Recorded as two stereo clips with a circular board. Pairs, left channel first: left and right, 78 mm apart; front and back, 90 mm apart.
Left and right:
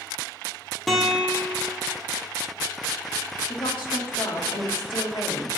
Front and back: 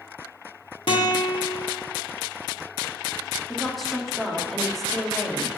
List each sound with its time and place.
0.9 s a guitar: 5° left, 1.6 m
3.5 s a woman speaking: 90° left, 2.0 m